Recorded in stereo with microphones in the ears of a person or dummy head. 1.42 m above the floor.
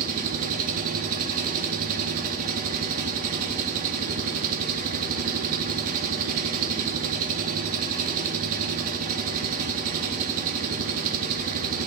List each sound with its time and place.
0.0 s an engine running: 45° right (ahead or behind), 0.9 m